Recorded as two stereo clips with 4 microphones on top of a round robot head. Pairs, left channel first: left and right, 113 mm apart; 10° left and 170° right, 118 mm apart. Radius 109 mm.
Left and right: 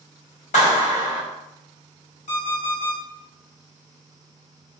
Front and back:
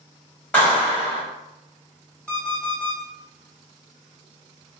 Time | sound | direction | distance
0.5 | a clap | 85° left | 1.2 m
2.3 | an alarm clock | 90° left | 1.2 m